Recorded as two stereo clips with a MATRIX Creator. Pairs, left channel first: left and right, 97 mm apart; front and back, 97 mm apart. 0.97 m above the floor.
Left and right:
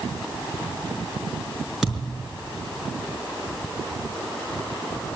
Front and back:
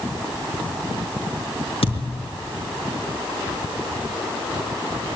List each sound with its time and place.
1.8 s a thud: straight ahead, 5.5 m